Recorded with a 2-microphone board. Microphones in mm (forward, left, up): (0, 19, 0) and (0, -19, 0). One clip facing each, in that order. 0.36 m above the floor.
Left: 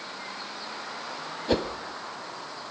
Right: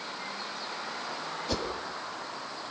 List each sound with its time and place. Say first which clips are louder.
1.5 s a whoosh: left 8 dB; 30° left (ahead or behind), 1.2 m